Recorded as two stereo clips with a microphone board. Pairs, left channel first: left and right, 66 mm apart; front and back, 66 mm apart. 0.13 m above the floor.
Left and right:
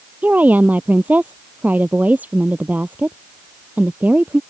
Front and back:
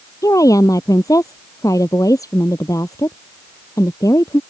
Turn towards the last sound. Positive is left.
turn(degrees=-25)